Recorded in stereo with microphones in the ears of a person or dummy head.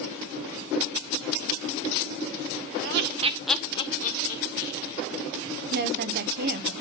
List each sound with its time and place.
2.8 s laughter: 60° right (ahead or behind), 1.0 m; by 5.0 s 60° left (ahead or behind), 2.5 m
5.7 s a woman speaking: 45° right (ahead or behind), 1.3 m